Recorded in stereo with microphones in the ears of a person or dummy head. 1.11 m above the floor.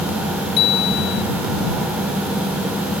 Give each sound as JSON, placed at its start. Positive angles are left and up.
{"t": 0.6, "sound": "a bicycle bell", "side_deg": 60}